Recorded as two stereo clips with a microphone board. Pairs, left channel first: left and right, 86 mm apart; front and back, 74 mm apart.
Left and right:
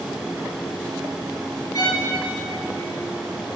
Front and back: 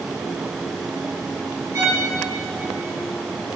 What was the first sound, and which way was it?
A violin, 135° left.